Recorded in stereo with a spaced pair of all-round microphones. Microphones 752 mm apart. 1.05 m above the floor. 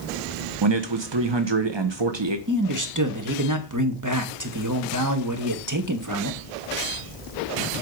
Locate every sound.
0.6 s a man speaking: 35° right (ahead or behind), 0.9 m
2.5 s a man speaking: 25° right (ahead or behind), 1.4 m